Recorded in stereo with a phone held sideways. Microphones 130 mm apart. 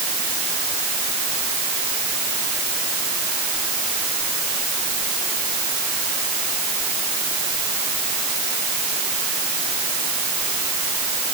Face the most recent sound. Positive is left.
No sound to turn to.